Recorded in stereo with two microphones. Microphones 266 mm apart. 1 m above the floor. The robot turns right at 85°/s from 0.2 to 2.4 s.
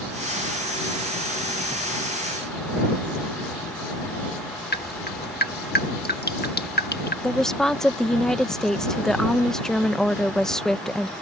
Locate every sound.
4.7 s dripping: 40° left (ahead or behind)
7.2 s a woman speaking: centre (ahead or behind)